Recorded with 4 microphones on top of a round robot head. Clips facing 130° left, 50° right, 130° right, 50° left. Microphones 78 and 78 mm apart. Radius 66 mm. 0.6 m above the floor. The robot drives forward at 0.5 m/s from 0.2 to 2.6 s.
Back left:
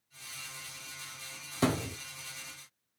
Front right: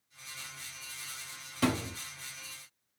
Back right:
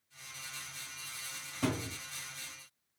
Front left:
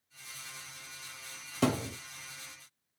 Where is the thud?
65° left, 1.1 m; by 2.0 s 75° left, 1.0 m.